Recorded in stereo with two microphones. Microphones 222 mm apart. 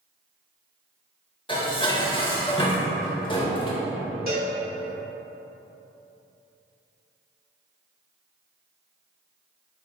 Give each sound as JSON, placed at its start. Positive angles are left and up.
{"t": 1.5, "sound": "dishes clattering", "side_deg": 25, "distance_m": 0.8}
{"t": 4.3, "sound": "a cowbell", "side_deg": -45, "distance_m": 1.6}